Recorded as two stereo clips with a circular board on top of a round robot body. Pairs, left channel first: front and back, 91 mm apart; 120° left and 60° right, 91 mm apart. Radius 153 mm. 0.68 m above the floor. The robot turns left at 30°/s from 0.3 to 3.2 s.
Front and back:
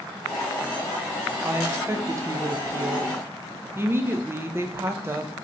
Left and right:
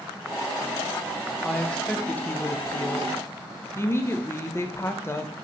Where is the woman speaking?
160° right, 0.6 m; by 5.3 s 145° left, 0.6 m.